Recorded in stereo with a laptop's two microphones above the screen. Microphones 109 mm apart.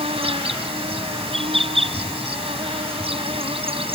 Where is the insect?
65° right (ahead or behind).